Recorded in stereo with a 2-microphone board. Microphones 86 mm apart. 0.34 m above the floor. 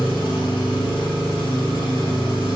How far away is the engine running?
About 1.7 m.